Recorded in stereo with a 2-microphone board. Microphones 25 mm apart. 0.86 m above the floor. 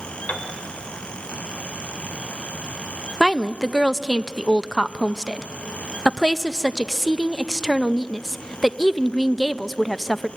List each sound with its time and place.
0.3 s a piano: 75° left (ahead or behind), 2.5 m
3.2 s a woman speaking: 5° left (ahead or behind), 0.5 m